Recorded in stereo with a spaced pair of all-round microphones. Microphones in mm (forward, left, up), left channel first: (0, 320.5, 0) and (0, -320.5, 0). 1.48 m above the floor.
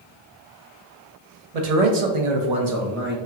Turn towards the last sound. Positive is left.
turn(degrees=-15)  # may be behind; listen again after turning